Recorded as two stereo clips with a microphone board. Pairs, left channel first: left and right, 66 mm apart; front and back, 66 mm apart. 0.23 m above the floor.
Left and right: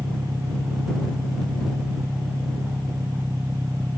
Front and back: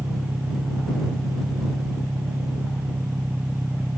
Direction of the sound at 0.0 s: 110° right.